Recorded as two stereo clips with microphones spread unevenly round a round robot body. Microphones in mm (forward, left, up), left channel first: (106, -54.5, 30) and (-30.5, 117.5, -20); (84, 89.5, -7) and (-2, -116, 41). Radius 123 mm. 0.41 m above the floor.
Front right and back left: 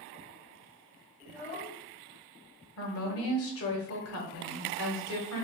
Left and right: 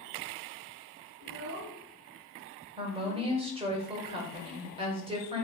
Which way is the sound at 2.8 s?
45° right.